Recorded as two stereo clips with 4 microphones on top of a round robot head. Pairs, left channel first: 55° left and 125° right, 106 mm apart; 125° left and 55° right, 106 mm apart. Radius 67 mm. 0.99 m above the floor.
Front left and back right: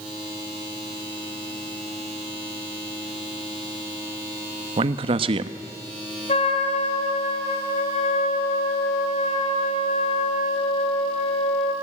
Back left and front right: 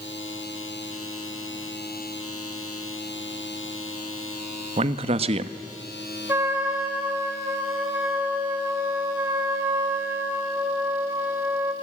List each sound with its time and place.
4.8 s a man speaking: 85° right, 1.0 m
6.3 s a trumpet: 15° left, 3 m